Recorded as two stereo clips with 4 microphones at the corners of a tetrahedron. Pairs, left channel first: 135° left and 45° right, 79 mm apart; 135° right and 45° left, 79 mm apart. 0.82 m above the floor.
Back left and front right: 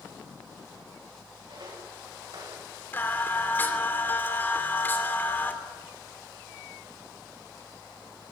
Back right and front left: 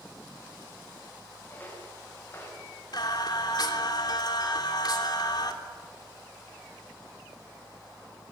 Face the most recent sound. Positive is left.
turn(degrees=-160)